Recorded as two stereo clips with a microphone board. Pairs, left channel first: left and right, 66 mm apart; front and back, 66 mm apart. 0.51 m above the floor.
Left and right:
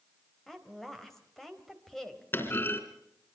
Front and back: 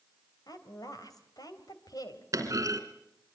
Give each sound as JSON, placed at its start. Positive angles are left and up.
{"t": 0.5, "sound": "a woman speaking", "azimuth_deg": 5, "distance_m": 3.0}
{"t": 2.3, "sound": "a clunk", "azimuth_deg": 145, "distance_m": 3.0}